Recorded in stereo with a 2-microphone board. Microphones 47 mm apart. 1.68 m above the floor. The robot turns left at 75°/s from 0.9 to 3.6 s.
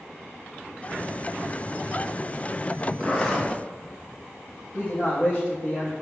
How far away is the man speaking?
About 1.7 m.